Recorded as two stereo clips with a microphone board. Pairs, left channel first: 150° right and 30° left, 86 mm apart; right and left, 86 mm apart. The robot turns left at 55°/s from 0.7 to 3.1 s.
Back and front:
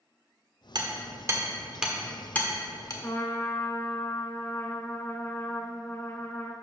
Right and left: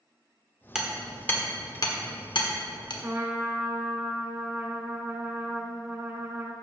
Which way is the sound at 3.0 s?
155° left.